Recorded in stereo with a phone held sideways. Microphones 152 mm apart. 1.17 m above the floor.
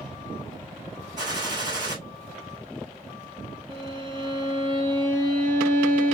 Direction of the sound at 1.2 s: 25° right (ahead or behind).